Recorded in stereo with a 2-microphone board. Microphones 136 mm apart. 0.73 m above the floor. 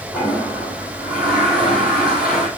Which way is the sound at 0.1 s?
5° right (ahead or behind).